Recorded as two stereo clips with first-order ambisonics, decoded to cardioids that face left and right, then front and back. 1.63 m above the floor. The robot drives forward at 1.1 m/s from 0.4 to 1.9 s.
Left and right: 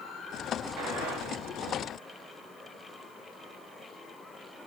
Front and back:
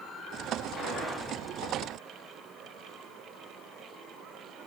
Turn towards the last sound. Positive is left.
turn(degrees=-105)